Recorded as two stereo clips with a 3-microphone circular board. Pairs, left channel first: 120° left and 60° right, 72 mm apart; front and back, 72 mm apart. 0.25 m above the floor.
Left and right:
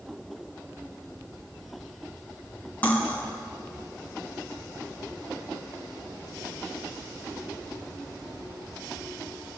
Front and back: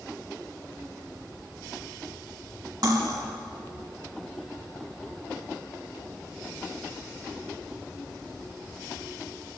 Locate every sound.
2.8 s cutlery clinking: straight behind, 1.2 m